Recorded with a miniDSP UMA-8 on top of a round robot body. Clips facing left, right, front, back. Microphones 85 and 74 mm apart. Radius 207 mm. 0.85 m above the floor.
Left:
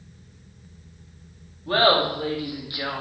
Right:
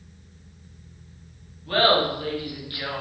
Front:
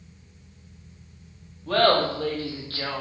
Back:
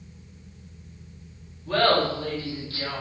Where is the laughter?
25° left, 3 m; by 3.0 s 15° left, 1.8 m.